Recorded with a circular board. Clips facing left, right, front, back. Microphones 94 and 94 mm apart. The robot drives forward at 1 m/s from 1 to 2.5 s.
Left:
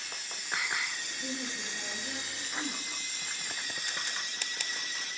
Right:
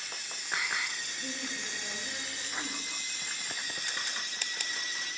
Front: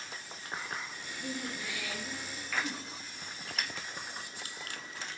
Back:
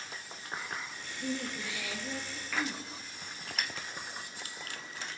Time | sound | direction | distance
1.2 | a woman speaking | 160° left | 3.5 m